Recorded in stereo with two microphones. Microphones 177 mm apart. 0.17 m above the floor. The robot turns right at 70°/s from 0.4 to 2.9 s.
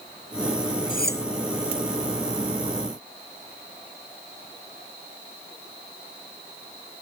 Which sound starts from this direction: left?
Cutlery clinking, at 0.9 s.